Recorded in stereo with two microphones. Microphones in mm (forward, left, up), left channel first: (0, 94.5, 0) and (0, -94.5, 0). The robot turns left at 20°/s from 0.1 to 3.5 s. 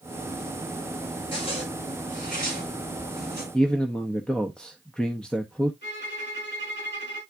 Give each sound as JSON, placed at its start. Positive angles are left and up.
{"t": 1.3, "sound": "a zipper", "side_deg": 30, "distance_m": 4.5}
{"t": 3.5, "sound": "a man speaking", "side_deg": 5, "distance_m": 0.8}
{"t": 5.8, "sound": "a violin", "side_deg": 75, "distance_m": 4.5}